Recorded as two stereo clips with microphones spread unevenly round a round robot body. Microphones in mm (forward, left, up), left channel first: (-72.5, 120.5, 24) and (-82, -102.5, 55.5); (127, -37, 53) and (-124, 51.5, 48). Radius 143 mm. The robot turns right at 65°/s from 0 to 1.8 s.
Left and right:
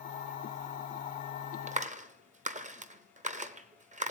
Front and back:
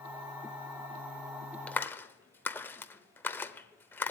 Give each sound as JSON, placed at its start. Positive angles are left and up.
{"t": 1.7, "sound": "a clap", "azimuth_deg": -100, "distance_m": 0.9}